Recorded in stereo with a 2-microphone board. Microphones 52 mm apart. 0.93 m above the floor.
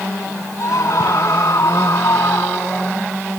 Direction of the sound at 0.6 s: 65° left (ahead or behind).